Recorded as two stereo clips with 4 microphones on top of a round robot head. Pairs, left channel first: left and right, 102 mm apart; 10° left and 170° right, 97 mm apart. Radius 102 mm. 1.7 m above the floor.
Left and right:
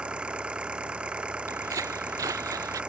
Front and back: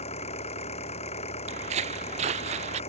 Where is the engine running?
10° right.